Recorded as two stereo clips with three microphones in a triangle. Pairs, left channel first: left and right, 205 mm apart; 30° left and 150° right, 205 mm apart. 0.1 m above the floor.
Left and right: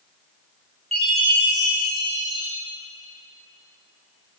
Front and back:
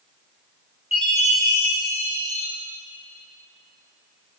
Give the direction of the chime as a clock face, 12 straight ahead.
1 o'clock.